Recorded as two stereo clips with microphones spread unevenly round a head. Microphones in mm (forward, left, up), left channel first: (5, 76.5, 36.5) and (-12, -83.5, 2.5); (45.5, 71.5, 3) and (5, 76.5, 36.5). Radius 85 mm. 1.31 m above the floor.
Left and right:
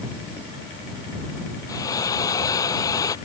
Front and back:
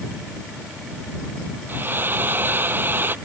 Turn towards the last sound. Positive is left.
turn(degrees=150)